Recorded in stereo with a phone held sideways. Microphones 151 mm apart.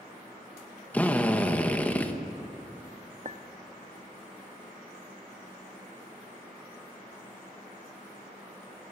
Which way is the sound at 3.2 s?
50° right (ahead or behind).